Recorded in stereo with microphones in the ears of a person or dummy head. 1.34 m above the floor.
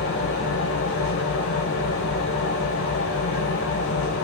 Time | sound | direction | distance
0.0 | an engine running | 65° left (ahead or behind) | 3 m